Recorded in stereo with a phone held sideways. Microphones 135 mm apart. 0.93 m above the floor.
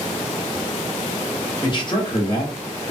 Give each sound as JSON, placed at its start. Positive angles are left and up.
{"t": 1.6, "sound": "a man speaking", "side_deg": 35, "distance_m": 1.0}